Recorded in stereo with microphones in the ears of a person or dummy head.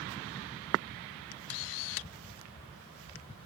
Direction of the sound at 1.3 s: 70° left (ahead or behind).